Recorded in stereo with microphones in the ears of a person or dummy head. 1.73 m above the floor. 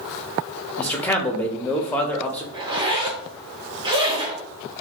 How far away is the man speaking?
About 0.6 m.